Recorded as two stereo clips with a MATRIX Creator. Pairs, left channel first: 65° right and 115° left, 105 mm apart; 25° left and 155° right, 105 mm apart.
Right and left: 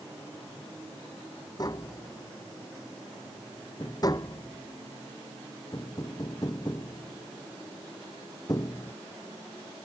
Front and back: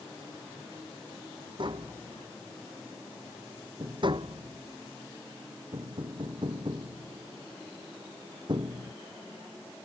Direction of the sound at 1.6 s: 120° right.